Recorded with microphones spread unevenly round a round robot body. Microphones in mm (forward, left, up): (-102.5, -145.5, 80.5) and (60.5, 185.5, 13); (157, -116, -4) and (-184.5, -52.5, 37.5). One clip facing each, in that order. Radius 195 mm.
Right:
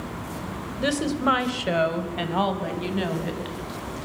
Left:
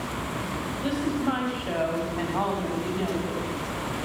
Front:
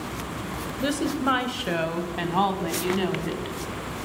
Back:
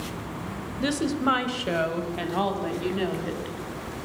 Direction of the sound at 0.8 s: 110° right.